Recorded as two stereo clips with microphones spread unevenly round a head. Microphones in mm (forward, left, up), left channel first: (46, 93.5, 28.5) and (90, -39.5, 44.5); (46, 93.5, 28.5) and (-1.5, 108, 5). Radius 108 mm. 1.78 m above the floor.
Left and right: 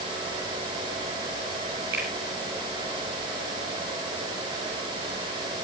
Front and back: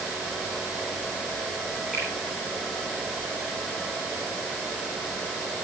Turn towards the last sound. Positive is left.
turn(degrees=-105)